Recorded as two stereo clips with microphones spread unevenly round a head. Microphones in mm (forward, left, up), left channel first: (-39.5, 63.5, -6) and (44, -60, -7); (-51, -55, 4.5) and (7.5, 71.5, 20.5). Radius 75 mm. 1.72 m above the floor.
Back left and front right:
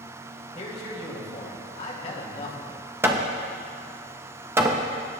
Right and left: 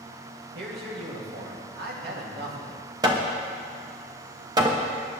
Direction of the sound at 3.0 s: 15° left.